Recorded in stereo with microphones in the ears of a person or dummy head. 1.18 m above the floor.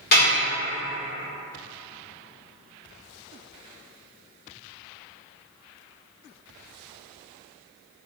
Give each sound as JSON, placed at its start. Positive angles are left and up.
{"t": 0.1, "sound": "dishes clattering", "side_deg": 45, "distance_m": 1.4}